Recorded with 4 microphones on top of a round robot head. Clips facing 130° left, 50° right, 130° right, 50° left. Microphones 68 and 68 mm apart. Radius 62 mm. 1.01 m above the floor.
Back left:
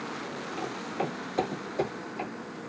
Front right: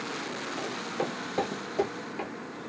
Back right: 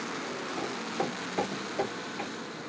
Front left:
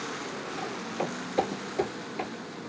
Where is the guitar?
No guitar in this recording.